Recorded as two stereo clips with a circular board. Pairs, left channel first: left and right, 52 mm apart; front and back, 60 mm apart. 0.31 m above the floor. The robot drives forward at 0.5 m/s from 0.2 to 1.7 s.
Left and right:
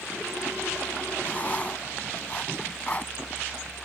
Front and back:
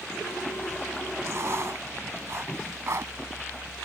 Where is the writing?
145° left; by 3.1 s 150° left.